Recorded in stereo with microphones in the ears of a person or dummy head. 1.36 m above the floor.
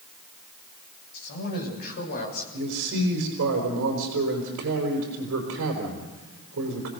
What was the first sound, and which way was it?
A man speaking, 55° left (ahead or behind).